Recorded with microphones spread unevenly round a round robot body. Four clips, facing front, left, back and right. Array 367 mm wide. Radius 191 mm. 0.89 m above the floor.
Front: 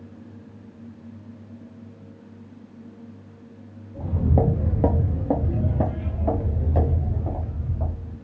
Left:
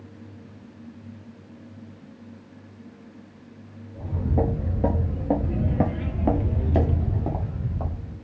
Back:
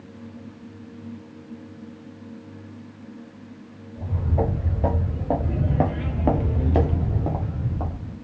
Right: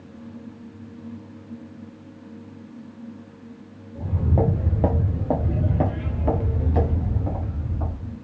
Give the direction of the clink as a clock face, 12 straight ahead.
I don't hear a clink.